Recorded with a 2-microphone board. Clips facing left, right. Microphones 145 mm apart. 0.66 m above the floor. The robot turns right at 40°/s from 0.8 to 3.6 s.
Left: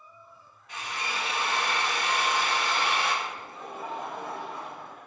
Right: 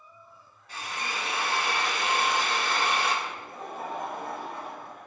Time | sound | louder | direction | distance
0.7 | a drill | even | 135° right | 1.4 m
3.2 | laughter | right 1 dB | 55° right (ahead or behind) | 1.4 m